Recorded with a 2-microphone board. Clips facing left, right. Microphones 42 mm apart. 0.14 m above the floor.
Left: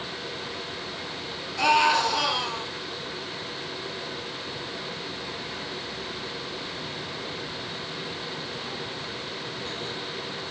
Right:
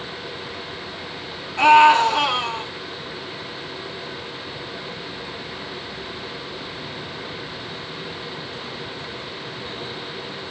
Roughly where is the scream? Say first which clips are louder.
Right 9 dB; right.